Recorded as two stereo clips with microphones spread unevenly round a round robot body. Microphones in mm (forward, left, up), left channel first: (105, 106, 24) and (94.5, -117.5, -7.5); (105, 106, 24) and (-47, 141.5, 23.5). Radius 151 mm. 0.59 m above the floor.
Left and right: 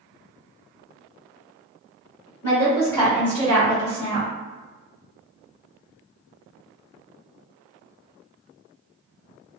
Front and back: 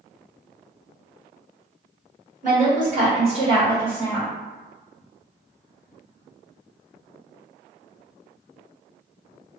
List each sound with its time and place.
2.4 s a woman speaking: 160° left, 1.6 m; by 4.3 s 95° right, 1.1 m